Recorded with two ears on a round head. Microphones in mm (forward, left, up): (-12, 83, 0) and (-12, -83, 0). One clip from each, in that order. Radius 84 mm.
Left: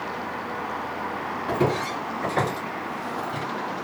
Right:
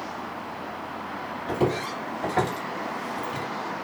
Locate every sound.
1.5 s footsteps: 20° left (ahead or behind), 1.8 m; by 3.5 s 15° right (ahead or behind), 1.7 m